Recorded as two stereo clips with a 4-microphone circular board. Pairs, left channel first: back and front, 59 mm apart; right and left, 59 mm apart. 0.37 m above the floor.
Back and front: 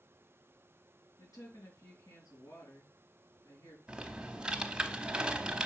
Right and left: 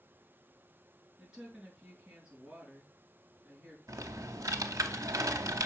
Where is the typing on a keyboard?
75° left, 0.8 m.